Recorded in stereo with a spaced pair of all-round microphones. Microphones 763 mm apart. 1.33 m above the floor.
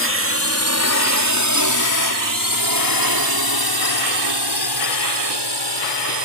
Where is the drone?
15° right (ahead or behind); by 6.3 s 35° right (ahead or behind).